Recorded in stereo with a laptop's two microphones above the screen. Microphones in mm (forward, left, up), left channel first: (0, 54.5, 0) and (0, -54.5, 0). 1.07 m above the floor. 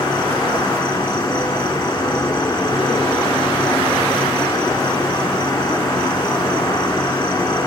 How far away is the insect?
About 1.7 m.